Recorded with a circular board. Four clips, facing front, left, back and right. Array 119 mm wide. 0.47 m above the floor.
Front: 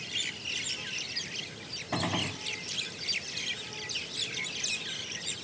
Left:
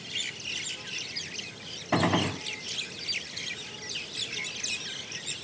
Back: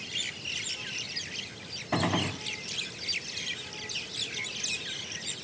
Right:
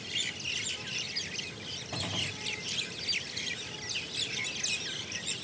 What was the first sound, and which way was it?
A gunshot, 105° left.